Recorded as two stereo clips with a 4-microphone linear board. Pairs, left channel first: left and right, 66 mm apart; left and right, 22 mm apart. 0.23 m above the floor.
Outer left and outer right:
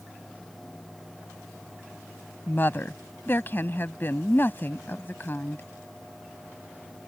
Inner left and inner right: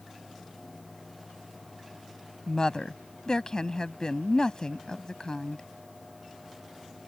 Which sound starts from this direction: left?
A woman speaking, at 2.5 s.